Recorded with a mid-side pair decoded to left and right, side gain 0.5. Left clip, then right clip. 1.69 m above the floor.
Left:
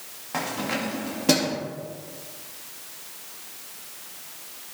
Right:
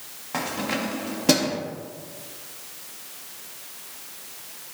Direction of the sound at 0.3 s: 5° right.